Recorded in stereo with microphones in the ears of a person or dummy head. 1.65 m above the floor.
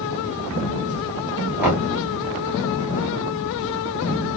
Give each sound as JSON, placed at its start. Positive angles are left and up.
{"t": 1.6, "sound": "knocking", "side_deg": -5, "distance_m": 0.8}